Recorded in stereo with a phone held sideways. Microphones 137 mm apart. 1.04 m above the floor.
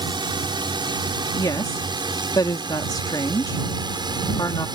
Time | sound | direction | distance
0.0 | a drone | 35° right (ahead or behind) | ?
1.3 | a woman speaking | 30° left (ahead or behind) | ?